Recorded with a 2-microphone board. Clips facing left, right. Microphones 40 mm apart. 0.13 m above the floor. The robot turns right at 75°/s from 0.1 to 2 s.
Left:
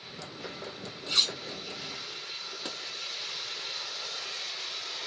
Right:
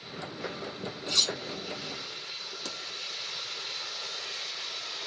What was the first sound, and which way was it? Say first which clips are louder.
Cutlery clinking: left 1 dB; 15° left (ahead or behind).